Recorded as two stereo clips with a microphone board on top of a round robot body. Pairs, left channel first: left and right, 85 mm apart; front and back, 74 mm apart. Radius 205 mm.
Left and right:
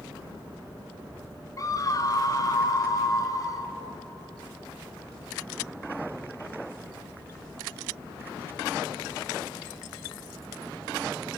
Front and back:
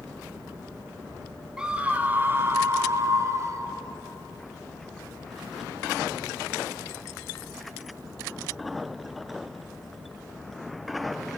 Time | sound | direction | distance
1.6 | a scream | 105° left | 1.7 m